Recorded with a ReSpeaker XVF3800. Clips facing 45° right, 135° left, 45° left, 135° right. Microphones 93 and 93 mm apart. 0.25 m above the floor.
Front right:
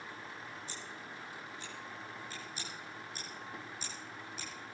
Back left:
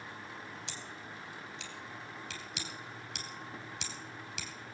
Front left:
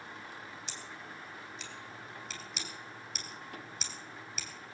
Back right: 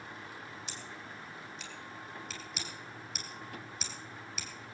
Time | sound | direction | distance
0.7 | scissors | 135° left | 2.5 m